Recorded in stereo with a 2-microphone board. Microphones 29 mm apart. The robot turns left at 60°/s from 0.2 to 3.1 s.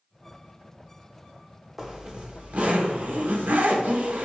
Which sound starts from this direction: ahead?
A zipper, at 1.8 s.